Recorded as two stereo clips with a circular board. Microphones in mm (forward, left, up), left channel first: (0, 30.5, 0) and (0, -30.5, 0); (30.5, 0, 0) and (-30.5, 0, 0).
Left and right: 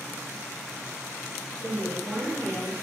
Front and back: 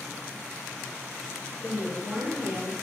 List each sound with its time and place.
1.6 s a woman speaking: 75° left, 1.7 m